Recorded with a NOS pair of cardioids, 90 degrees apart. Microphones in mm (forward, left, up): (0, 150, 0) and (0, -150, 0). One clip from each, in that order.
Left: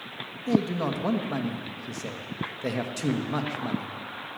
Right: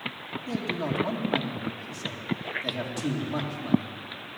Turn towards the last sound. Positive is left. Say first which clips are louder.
# left 4 dB
turn(degrees=40)